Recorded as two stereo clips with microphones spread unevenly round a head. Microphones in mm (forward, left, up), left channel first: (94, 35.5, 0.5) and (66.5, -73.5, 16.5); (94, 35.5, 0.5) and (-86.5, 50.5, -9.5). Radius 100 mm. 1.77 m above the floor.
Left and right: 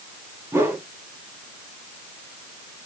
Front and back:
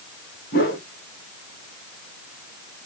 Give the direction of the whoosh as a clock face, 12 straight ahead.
1 o'clock.